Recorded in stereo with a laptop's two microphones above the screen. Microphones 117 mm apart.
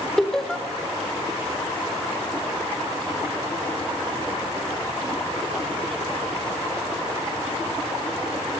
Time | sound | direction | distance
0.2 | laughter | 5° left (ahead or behind) | 3.5 m